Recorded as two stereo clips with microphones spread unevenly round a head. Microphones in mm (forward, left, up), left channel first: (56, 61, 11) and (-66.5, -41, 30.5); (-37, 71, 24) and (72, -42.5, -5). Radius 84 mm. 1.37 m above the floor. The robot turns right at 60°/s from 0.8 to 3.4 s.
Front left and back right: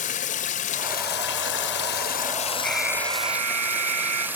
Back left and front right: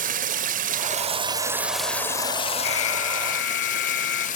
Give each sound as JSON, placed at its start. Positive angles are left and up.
{"t": 0.0, "sound": "running water", "azimuth_deg": -10, "distance_m": 1.6}
{"t": 2.6, "sound": "an alarm", "azimuth_deg": 125, "distance_m": 5.0}